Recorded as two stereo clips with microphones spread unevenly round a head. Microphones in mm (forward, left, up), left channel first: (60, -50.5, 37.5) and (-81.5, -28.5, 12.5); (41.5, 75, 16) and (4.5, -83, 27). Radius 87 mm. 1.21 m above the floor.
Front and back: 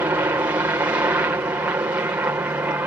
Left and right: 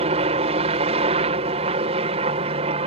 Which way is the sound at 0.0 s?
130° right.